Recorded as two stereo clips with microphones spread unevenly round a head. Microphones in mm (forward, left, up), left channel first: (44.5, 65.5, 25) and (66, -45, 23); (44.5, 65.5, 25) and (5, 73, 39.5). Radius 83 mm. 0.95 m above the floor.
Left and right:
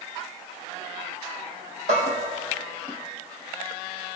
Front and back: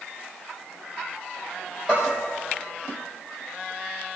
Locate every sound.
1.9 s a bell: 105° right, 4.5 m